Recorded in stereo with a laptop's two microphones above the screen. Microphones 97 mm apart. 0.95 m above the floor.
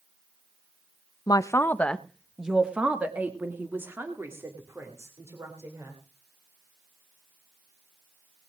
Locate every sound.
1.3 s a man speaking: 45° left (ahead or behind), 0.6 m; by 6.0 s 30° right (ahead or behind), 3.5 m